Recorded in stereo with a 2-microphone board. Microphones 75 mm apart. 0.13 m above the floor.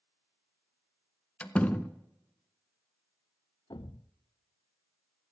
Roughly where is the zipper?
I don't hear a zipper.